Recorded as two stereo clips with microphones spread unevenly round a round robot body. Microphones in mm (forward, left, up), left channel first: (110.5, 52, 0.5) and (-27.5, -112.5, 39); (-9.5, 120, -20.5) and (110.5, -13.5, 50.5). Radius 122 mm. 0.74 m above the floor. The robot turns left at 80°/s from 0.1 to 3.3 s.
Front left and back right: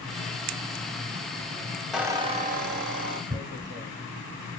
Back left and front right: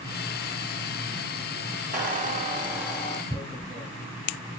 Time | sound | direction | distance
1.9 | a squeak | 45° right | 0.8 m
3.3 | tearing paper | 95° right | 0.8 m